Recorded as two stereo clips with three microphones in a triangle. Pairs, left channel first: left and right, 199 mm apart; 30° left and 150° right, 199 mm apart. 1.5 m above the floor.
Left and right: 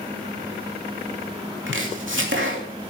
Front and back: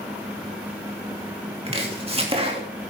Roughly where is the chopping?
Right.